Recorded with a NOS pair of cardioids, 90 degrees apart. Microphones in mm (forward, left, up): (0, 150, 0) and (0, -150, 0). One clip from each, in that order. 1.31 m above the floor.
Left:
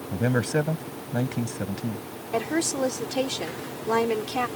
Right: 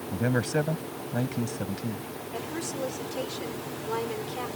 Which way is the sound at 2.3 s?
65° left.